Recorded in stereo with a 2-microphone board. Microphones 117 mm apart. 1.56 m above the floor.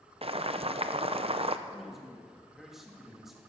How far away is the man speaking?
About 2 m.